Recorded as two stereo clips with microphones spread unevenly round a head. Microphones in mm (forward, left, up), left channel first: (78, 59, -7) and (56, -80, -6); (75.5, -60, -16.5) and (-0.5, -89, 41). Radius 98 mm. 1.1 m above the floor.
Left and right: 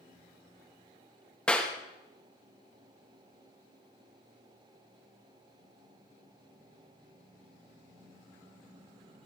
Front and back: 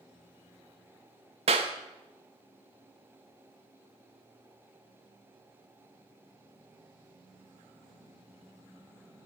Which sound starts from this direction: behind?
A clap, at 1.5 s.